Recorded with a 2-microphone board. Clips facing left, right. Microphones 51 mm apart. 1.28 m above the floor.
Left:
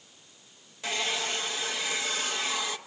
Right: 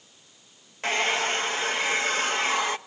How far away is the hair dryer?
About 0.6 m.